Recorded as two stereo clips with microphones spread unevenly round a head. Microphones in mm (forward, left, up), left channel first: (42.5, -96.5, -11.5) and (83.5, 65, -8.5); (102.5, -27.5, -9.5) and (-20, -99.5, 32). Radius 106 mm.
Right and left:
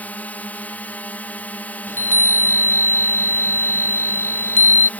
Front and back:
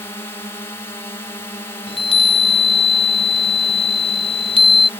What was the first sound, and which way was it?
A drone, 25° right.